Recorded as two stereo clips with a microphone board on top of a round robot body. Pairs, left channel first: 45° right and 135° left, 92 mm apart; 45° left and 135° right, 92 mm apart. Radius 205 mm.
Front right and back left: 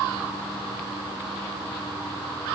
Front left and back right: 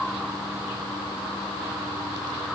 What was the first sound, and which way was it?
Only background noise.